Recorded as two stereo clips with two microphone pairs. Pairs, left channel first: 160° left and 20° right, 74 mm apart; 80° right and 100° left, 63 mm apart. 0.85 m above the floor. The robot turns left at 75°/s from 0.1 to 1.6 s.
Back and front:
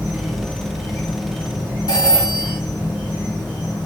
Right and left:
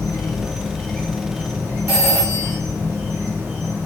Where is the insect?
90° right, 0.9 m; by 3.9 s 155° left, 0.9 m.